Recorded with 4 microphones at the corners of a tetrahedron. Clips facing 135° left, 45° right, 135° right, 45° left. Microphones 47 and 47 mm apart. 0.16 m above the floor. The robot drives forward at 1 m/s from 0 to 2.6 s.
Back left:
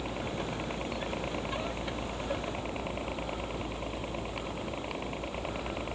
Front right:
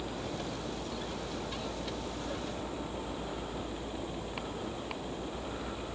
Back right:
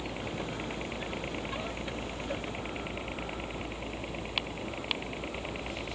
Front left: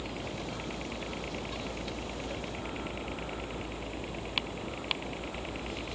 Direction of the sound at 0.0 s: 150° left.